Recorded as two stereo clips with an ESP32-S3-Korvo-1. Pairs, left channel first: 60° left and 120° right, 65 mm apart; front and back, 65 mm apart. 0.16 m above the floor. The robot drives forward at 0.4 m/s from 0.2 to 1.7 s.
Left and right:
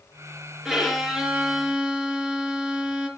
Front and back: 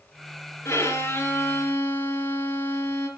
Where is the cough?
I don't hear a cough.